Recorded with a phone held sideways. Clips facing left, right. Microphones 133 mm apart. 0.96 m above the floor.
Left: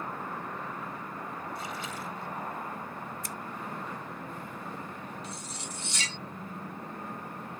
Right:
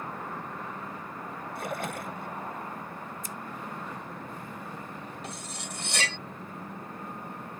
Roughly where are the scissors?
Left.